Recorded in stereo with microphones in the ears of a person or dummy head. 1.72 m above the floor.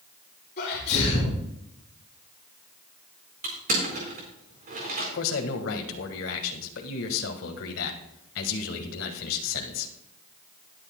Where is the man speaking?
75° left (ahead or behind), 1.6 m.